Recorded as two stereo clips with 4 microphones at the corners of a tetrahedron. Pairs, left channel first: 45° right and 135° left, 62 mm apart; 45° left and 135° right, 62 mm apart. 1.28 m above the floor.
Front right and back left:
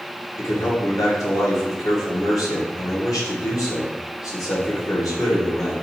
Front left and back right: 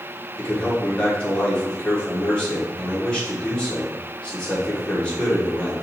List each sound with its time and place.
0.4 s a man speaking: 25° right, 1.5 m